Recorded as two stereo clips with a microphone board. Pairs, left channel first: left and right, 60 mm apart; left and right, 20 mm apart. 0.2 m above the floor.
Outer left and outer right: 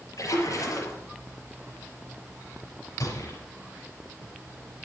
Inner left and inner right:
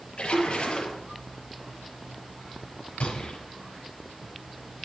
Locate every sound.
0.2 s a splash: 75° left (ahead or behind), 4.5 m
3.0 s a gunshot: 65° left (ahead or behind), 5 m